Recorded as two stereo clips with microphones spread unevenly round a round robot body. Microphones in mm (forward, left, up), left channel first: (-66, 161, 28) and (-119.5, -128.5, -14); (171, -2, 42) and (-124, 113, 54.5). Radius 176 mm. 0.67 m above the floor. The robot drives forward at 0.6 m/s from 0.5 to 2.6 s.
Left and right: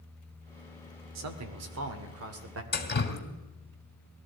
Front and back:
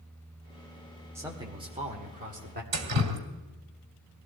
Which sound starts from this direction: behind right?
A man speaking, at 1.1 s.